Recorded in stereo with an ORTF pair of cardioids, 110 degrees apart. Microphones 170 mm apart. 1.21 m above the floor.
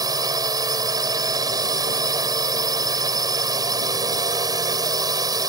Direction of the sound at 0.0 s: 20° right.